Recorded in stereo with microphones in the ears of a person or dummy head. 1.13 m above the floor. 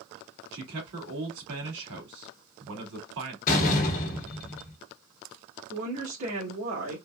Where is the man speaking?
80° right, 2.5 m.